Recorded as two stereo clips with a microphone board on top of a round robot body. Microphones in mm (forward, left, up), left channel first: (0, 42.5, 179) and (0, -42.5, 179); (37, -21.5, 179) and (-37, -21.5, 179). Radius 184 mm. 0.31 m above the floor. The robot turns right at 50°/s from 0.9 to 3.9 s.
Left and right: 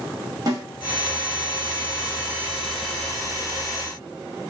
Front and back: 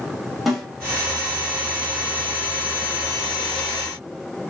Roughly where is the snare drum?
Right.